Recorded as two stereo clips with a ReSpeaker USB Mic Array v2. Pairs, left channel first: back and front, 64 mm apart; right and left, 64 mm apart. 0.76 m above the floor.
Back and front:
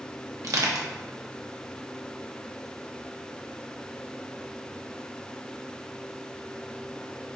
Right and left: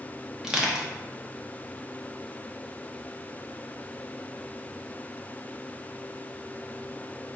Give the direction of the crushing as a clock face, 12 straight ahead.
12 o'clock.